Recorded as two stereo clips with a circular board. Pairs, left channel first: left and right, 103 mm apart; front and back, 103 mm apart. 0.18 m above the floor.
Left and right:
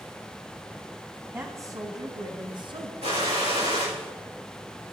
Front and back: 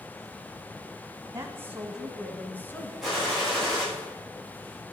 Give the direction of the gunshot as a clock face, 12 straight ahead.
3 o'clock.